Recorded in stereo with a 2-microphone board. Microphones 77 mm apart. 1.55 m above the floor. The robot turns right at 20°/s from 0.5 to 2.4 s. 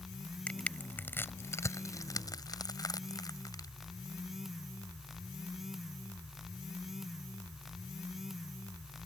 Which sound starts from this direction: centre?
Crushing, at 0.5 s.